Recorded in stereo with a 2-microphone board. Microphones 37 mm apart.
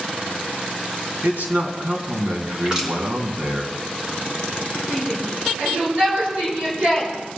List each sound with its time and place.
1.2 s a man speaking: 60° right (ahead or behind), 3 m
2.6 s crushing: 25° right (ahead or behind), 4 m
4.9 s a shout: 45° right (ahead or behind), 7 m